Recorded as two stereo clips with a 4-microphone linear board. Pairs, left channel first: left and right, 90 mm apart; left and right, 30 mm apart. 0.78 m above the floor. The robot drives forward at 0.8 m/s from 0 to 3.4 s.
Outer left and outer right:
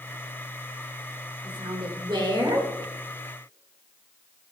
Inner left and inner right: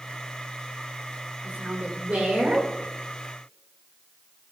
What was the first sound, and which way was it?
A woman speaking, 60° right (ahead or behind).